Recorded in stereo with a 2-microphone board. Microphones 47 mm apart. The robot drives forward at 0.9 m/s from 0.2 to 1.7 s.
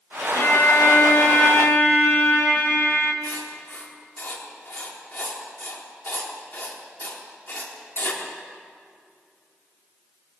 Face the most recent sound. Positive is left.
turn(degrees=45)  # may be behind; listen again after turning